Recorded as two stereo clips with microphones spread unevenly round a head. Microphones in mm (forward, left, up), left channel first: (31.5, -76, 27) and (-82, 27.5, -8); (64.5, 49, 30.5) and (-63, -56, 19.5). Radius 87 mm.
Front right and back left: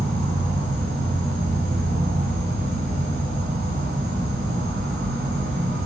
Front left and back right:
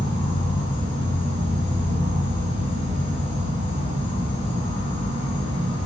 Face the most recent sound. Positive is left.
turn(degrees=95)